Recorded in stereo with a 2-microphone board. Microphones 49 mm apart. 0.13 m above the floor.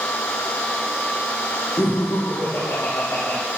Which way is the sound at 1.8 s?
65° left (ahead or behind).